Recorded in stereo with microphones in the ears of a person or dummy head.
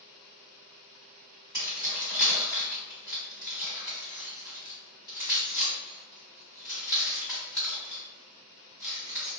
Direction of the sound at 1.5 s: 15° right (ahead or behind).